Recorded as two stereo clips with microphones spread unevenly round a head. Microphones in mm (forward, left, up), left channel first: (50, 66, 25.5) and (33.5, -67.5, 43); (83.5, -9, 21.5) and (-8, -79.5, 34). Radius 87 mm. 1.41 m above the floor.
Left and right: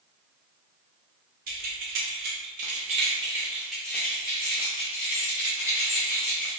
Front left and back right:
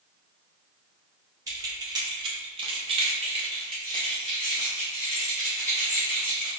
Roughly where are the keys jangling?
Right.